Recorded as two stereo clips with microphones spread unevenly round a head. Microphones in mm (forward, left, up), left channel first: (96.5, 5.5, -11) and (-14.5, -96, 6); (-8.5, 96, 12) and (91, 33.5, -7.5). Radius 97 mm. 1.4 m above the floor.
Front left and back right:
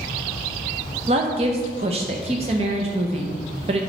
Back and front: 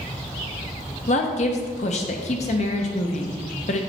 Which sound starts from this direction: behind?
A woman speaking, at 1.1 s.